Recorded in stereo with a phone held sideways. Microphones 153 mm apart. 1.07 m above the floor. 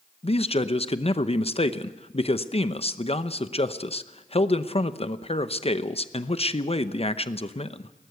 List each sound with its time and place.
0.2 s a man speaking: 45° left (ahead or behind), 0.8 m